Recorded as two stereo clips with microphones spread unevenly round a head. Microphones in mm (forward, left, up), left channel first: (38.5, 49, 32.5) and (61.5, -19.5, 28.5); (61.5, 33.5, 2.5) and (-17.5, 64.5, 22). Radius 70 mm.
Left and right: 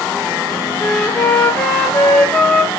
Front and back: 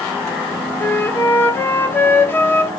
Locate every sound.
0.8 s a flute: 40° left, 1.2 m